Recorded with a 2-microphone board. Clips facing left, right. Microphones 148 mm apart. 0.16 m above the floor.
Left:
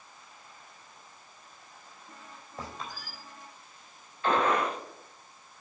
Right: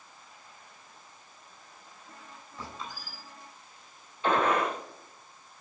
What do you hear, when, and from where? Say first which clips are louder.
2.6 s a squeak: left 1 dB; 50° left (ahead or behind), 4 m
4.2 s a gunshot: even; 20° right (ahead or behind), 4.5 m